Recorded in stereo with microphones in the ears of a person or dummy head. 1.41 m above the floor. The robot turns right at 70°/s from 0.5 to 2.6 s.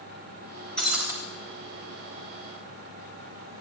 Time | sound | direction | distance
0.8 | breaking glass | 5° right (ahead or behind) | 3 m